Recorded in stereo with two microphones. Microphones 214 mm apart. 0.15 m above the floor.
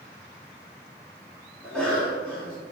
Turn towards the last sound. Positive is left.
turn(degrees=5)  # may be behind; listen again after turning